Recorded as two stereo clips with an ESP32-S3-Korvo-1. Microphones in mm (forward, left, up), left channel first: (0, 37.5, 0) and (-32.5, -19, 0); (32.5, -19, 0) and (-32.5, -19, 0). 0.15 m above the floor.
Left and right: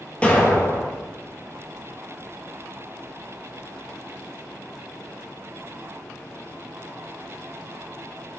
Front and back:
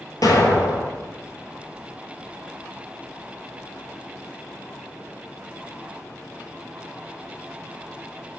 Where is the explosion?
10° right, 0.6 m.